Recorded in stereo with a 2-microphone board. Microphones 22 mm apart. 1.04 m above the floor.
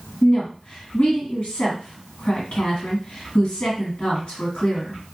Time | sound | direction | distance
0.2 | a woman speaking | 65° left (ahead or behind) | 1.6 m